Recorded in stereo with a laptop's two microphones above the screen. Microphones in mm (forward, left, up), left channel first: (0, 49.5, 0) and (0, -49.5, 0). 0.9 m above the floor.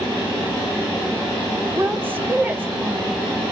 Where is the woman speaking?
20° right (ahead or behind), 1.2 m.